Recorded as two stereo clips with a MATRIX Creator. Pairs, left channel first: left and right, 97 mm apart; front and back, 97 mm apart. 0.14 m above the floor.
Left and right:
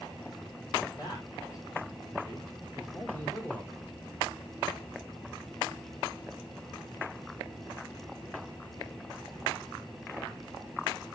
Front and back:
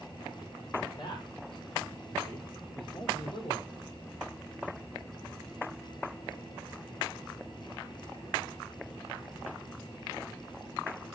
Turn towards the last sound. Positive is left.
turn(degrees=25)